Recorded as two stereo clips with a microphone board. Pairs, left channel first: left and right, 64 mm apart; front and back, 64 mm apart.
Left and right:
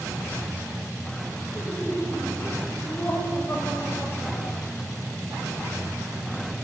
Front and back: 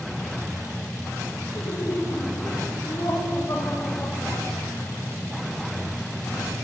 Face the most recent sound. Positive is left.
turn(degrees=45)